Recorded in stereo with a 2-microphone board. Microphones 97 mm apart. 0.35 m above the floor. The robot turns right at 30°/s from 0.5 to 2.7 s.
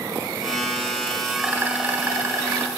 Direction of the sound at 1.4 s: 155° right.